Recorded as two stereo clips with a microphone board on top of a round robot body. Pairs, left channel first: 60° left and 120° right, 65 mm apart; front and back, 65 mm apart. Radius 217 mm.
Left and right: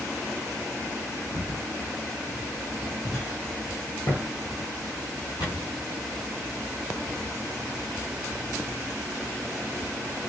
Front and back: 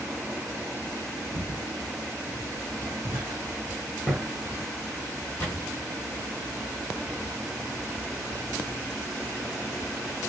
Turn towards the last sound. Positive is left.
turn(degrees=50)